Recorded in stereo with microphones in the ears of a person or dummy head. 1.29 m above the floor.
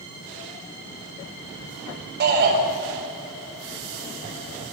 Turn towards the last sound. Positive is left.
turn(degrees=-50)  # may be behind; listen again after turning